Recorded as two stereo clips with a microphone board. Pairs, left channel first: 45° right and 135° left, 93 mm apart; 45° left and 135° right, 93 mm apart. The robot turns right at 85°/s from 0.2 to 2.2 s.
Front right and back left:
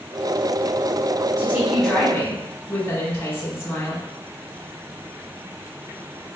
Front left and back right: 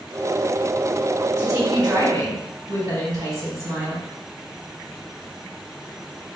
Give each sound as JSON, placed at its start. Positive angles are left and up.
{"t": 1.4, "sound": "a woman speaking", "azimuth_deg": -170, "distance_m": 2.0}